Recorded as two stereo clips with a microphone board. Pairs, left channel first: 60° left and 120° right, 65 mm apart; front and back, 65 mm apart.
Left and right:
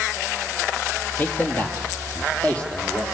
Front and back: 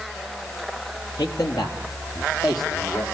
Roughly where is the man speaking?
Ahead.